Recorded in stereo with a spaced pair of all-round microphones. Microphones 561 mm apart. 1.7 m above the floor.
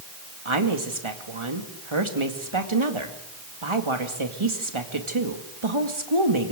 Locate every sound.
0.5 s a woman speaking: 55° right (ahead or behind), 2.5 m